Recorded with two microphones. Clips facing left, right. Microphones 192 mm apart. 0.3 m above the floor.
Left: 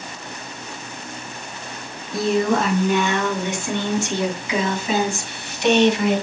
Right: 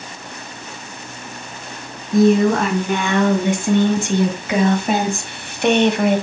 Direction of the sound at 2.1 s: 45° right (ahead or behind).